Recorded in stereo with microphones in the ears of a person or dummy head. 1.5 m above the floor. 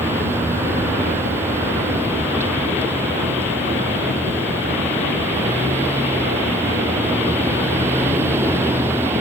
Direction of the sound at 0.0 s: 15° right (ahead or behind).